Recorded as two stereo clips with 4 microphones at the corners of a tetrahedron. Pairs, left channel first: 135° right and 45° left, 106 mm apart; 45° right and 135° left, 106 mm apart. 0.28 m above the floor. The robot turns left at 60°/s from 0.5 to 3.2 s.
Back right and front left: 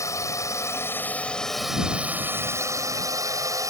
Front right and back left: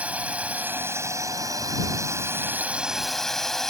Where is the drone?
160° right; by 3.7 s 40° left.